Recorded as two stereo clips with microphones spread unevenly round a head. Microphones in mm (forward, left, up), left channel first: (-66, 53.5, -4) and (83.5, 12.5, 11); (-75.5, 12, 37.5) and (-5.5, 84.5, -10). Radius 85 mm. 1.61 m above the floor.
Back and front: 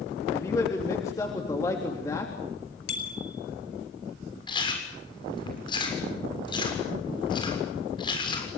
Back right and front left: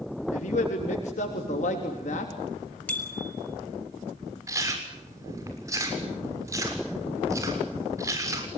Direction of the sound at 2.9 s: 155° left.